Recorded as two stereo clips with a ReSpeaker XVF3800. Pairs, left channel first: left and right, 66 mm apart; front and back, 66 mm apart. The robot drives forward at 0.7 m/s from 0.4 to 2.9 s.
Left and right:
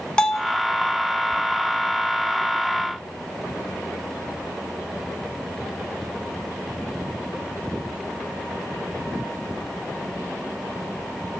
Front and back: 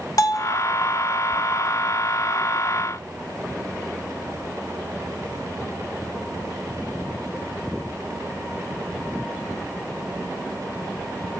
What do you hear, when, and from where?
0.2 s a bell: 15° left, 1.0 m